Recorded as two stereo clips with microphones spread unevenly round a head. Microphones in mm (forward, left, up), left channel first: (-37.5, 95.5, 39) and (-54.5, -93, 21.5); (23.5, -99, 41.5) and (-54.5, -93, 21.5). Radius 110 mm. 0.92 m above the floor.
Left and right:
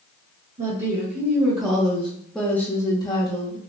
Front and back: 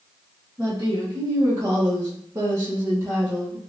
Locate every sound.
0.6 s a woman speaking: 140° right, 1.5 m; by 3.6 s 130° left, 1.1 m